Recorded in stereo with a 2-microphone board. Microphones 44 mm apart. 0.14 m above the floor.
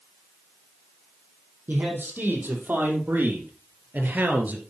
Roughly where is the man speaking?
Right.